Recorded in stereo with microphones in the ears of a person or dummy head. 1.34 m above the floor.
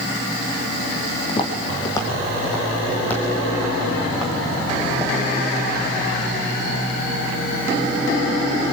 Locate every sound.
1.3 s footsteps: 30° left (ahead or behind), 4 m; by 5.2 s 5° right (ahead or behind), 5.5 m